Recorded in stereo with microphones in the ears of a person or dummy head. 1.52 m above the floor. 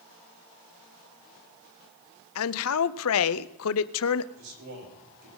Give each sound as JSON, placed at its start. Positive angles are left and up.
{"t": 2.4, "sound": "a man speaking", "side_deg": 70, "distance_m": 0.7}
{"t": 4.3, "sound": "a man speaking", "side_deg": -70, "distance_m": 6.5}